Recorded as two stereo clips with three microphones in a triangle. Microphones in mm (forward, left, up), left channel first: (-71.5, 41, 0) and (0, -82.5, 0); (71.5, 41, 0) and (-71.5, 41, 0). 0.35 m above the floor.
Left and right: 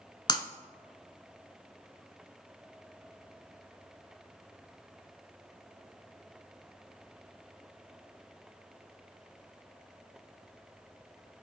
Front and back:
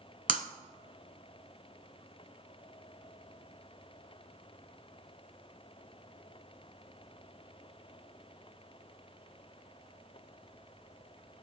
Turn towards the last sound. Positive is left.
turn(degrees=180)